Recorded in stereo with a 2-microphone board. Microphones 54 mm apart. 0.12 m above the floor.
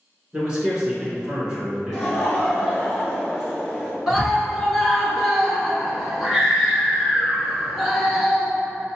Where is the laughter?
Centre (ahead or behind), 2.0 m.